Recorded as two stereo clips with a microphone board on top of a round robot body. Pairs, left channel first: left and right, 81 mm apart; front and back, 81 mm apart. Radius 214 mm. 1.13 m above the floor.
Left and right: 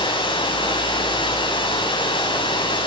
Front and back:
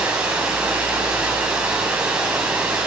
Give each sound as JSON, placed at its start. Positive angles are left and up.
{"t": 0.0, "sound": "running water", "azimuth_deg": 105, "distance_m": 7.5}